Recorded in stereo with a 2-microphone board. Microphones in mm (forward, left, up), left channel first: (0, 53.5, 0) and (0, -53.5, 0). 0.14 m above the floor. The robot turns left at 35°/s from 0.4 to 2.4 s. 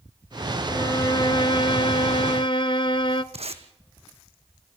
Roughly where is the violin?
Behind left.